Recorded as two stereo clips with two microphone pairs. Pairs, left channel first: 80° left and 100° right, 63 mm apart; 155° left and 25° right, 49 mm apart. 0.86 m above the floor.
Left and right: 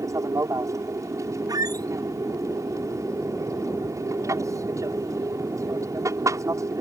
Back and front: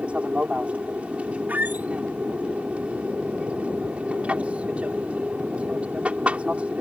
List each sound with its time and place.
0.0 s an aircraft: 80° right
1.5 s a squeak: 80° right